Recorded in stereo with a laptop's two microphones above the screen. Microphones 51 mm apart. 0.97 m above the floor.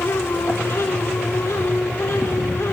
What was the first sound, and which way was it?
A fan, 85° left.